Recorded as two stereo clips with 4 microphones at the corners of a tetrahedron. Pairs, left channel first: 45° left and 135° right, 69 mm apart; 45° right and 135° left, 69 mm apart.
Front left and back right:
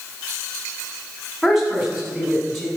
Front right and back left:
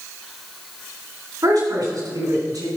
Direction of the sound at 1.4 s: 140° left.